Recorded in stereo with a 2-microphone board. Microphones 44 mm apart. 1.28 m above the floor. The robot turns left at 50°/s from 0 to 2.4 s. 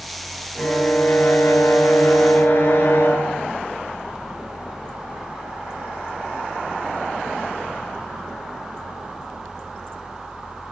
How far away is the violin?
About 7 m.